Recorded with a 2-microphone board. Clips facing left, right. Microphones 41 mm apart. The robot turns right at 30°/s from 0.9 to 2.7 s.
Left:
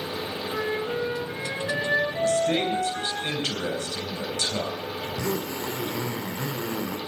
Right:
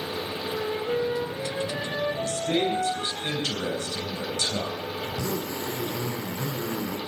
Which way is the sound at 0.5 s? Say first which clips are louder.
Even; 80° left.